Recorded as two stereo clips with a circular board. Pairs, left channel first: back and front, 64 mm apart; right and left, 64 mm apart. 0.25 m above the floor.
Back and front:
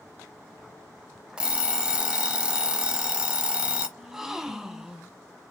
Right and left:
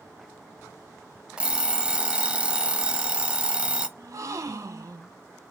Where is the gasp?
80° left, 0.6 m.